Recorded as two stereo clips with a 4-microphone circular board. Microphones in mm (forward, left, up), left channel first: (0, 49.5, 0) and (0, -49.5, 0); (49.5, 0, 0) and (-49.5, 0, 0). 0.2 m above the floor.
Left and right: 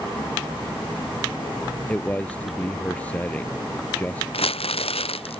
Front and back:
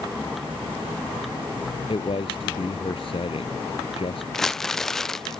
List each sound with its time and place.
1.9 s a man speaking: 15° left
4.3 s crumpling: 85° left